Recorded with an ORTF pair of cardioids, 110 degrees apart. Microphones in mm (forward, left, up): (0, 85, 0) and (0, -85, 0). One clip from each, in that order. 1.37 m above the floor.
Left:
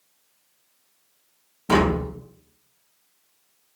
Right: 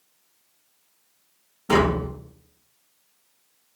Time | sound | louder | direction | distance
1.7 | tapping | even | 20° left | 0.9 m